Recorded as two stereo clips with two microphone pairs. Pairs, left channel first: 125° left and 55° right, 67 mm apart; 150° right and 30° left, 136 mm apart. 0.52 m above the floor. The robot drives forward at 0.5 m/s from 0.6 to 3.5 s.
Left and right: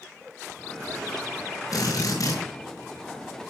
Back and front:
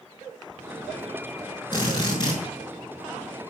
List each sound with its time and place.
1.7 s a drill: 150° left, 6 m